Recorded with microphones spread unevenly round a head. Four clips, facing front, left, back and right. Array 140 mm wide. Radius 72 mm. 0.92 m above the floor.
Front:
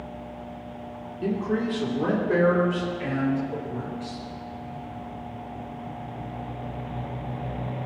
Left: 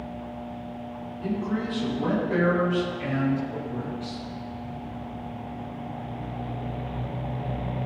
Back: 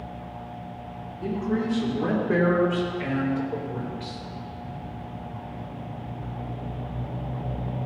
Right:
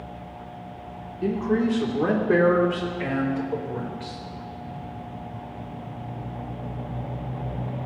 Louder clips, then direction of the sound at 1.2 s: Right 6 dB, front 1 dB; 65° right.